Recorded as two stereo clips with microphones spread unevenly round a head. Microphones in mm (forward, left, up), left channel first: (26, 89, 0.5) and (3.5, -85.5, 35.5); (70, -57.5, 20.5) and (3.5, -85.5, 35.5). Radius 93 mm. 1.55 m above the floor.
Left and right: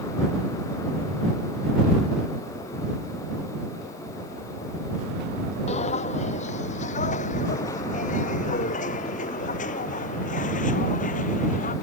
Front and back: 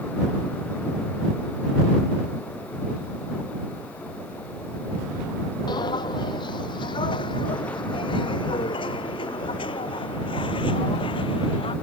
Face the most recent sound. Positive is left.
turn(degrees=30)